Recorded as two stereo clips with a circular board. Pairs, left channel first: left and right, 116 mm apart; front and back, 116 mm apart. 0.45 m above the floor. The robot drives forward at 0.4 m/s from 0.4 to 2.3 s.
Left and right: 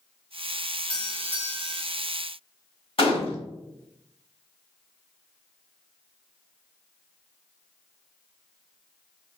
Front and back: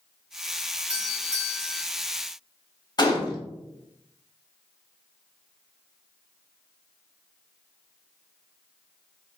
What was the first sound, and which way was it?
A doorbell, 115° right.